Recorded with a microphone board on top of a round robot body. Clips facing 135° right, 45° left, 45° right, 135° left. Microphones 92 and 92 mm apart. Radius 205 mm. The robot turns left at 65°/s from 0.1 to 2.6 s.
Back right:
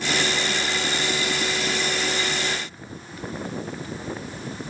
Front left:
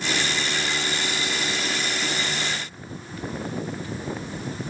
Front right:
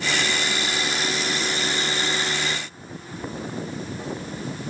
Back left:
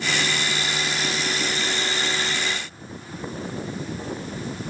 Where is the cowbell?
I don't hear a cowbell.